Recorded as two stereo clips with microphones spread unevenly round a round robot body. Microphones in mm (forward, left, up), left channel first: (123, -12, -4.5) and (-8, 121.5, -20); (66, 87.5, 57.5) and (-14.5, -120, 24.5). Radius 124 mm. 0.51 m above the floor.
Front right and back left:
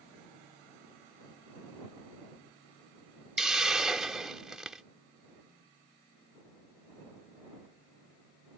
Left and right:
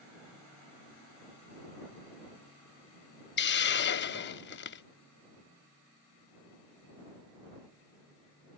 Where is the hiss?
50° left.